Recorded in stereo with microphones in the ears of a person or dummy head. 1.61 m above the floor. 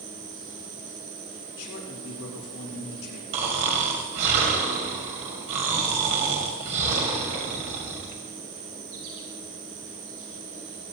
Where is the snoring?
40° right (ahead or behind), 2 m.